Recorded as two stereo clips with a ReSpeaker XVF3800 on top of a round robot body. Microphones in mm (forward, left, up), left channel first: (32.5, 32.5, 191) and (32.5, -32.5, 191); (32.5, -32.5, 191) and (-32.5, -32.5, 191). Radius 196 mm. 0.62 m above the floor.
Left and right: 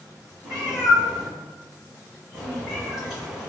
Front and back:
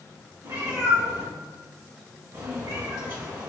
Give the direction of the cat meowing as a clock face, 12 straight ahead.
6 o'clock.